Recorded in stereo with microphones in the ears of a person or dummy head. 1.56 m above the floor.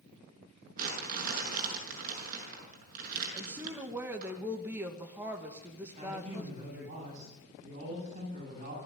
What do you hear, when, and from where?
0.8 s crumpling: 45° right (ahead or behind), 6 m
3.3 s a woman speaking: 10° right (ahead or behind), 2 m
6.0 s a man speaking: 40° right (ahead or behind), 10 m